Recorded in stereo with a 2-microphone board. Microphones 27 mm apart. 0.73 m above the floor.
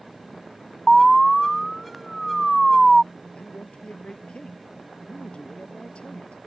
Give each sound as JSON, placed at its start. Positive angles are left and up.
{"t": 0.9, "sound": "an alarm", "side_deg": 5}
{"t": 3.3, "sound": "a man speaking", "side_deg": 35}